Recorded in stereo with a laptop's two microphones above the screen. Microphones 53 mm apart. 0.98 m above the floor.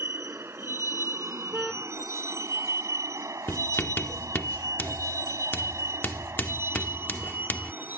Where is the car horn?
Centre (ahead or behind).